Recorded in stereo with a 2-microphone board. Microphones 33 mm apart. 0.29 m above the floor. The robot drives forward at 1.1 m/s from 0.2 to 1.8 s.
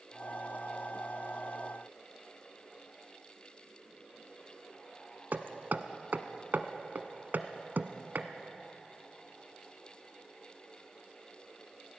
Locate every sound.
5.3 s hammering: 70° right (ahead or behind), 1.0 m